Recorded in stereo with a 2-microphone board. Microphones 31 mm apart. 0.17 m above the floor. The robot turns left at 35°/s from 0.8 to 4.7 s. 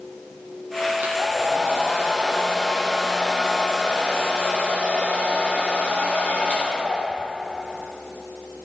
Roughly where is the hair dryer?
Right.